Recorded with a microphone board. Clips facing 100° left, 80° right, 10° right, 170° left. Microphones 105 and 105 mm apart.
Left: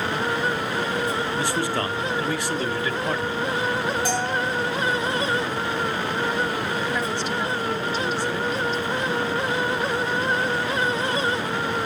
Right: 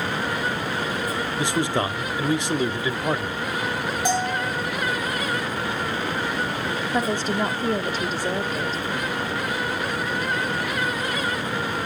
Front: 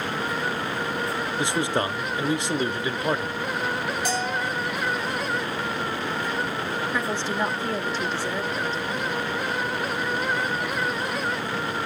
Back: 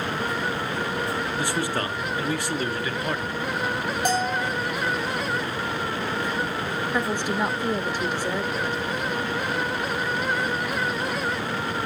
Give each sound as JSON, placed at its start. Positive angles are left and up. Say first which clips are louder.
{"t": 1.4, "sound": "a man speaking", "louder": "right 1 dB, front 5 dB", "azimuth_deg": -45, "distance_m": 0.9}
{"t": 4.0, "sound": "a bell", "louder": "right 1 dB, back 5 dB", "azimuth_deg": -150, "distance_m": 4.0}
{"t": 6.9, "sound": "a woman speaking", "louder": "right 2 dB, back 3 dB", "azimuth_deg": -115, "distance_m": 1.9}